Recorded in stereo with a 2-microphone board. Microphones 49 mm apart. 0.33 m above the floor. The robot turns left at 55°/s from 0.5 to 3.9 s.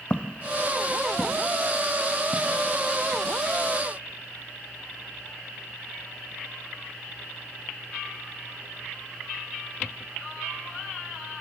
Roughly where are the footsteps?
Left.